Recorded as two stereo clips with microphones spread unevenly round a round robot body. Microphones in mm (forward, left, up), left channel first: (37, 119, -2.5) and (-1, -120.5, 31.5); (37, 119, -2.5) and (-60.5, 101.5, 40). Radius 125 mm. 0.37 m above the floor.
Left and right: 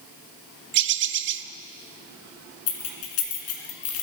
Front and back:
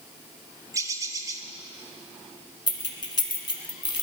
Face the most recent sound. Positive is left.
turn(degrees=50)